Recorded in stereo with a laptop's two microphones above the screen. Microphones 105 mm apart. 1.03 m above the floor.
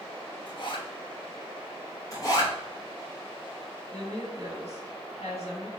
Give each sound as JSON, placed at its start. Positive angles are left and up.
{"t": 0.5, "sound": "a zipper", "side_deg": 45, "distance_m": 0.8}
{"t": 2.1, "sound": "a zipper", "side_deg": 35, "distance_m": 0.9}
{"t": 3.9, "sound": "a woman speaking", "side_deg": 75, "distance_m": 1.5}